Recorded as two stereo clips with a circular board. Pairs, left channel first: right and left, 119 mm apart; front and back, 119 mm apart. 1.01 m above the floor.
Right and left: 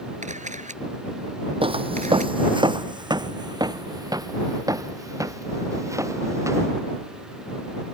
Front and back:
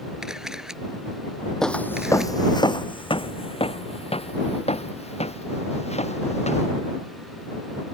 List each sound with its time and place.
0.2 s a camera shutter: 95° left
1.6 s footsteps: 85° left; by 6.7 s 25° left